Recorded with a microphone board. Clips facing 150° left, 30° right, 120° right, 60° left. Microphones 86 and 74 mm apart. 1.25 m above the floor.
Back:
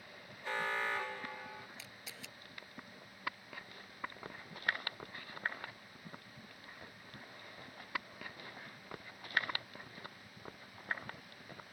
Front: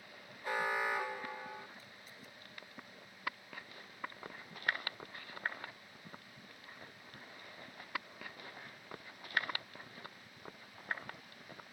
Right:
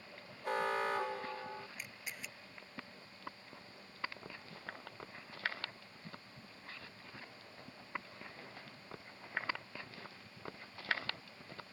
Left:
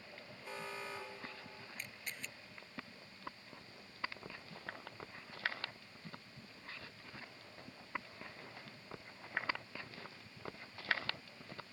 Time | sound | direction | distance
0.4 | an alarm | 105° right | ?
1.8 | a camera shutter | 155° left | ?